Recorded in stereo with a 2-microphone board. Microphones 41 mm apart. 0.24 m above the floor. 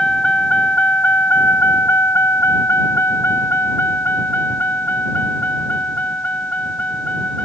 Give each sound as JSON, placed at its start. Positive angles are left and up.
{"t": 0.0, "sound": "a vehicle", "side_deg": 25}